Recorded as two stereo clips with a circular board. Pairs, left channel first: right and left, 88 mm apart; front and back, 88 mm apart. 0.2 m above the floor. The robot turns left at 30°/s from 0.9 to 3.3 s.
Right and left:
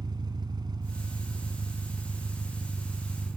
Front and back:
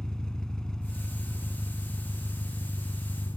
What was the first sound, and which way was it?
An engine running, 80° left.